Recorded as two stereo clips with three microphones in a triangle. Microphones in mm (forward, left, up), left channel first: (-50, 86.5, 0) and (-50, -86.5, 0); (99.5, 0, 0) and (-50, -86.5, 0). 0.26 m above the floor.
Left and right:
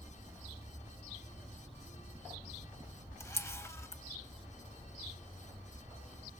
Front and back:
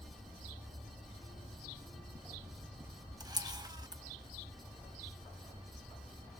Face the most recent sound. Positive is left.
turn(degrees=155)